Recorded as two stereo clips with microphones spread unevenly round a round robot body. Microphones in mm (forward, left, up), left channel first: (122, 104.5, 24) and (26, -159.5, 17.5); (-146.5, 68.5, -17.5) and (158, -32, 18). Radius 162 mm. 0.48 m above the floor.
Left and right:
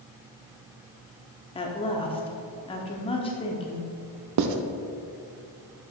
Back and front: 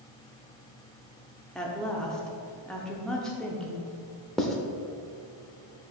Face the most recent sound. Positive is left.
turn(degrees=-115)